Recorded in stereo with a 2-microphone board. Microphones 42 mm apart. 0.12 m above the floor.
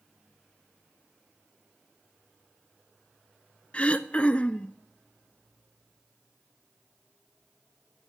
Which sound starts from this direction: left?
Throat clearing, at 3.7 s.